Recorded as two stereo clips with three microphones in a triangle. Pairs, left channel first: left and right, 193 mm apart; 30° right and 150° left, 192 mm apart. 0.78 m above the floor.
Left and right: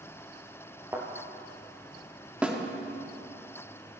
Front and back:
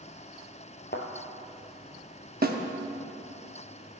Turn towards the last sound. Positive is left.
turn(degrees=-175)